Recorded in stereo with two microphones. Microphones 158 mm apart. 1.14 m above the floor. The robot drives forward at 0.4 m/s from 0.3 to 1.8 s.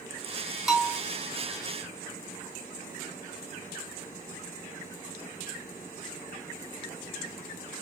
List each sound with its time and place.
0.7 s a bell: 5° right (ahead or behind), 1.6 m